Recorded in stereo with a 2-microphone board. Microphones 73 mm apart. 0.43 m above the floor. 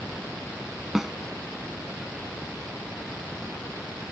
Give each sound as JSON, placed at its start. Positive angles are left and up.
{"t": 0.9, "sound": "a snare drum", "side_deg": -5}